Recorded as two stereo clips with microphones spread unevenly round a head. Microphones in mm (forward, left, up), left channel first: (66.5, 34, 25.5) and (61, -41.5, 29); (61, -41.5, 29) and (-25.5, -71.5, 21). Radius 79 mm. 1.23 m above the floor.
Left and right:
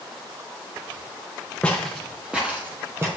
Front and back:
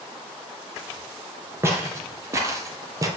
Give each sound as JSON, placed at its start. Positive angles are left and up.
{"t": 1.6, "sound": "footsteps", "azimuth_deg": 155, "distance_m": 1.3}